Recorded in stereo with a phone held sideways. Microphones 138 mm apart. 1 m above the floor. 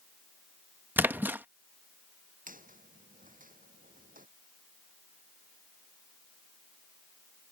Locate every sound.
1.0 s a splash: 15° right (ahead or behind)
2.5 s a squeak: 80° right